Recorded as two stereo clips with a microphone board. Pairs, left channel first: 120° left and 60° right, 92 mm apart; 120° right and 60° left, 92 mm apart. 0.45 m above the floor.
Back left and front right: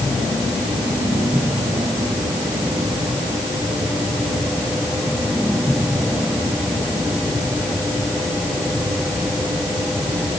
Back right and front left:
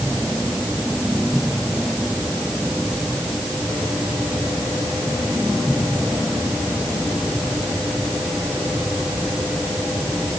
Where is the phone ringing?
I don't hear a phone ringing.